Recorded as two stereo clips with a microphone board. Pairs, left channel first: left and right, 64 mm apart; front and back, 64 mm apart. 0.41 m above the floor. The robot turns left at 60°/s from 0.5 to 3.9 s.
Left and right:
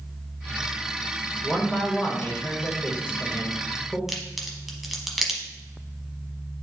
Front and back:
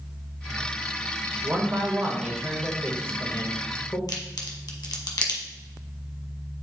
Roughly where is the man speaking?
Behind left.